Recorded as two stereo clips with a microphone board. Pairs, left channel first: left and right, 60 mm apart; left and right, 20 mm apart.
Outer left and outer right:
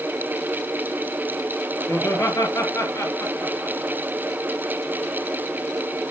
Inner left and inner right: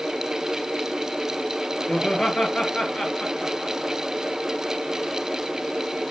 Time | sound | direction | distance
1.9 | laughter | 55° left (ahead or behind) | 3.5 m